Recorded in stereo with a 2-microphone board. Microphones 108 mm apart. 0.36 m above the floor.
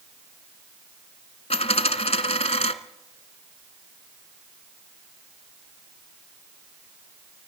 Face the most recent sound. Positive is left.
turn(degrees=80)